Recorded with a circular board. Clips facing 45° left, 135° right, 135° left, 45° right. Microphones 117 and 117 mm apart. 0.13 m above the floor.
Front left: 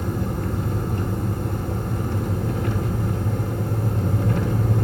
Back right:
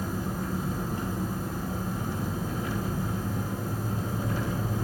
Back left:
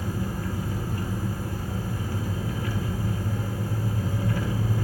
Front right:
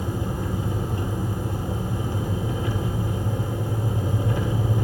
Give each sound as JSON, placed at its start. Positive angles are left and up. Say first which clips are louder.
{"t": 0.0, "sound": "an engine running", "louder": "front left 5 dB, front right 2 dB", "azimuth_deg": 25, "distance_m": 1.2}